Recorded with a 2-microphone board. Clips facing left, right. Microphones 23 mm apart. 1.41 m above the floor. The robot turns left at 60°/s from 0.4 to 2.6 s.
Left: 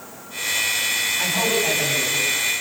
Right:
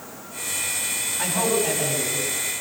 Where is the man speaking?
Straight behind, 9.5 m; by 2.5 s 105° left, 9.5 m.